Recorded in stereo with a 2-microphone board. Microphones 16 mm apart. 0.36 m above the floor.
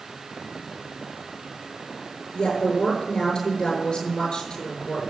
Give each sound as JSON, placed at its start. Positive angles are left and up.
{"t": 2.3, "sound": "a woman speaking", "side_deg": 45, "distance_m": 6.5}